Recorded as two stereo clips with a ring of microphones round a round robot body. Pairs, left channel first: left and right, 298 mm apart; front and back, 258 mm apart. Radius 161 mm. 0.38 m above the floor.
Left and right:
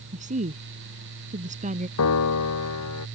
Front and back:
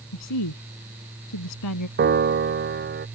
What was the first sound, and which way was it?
A woman speaking, 25° right.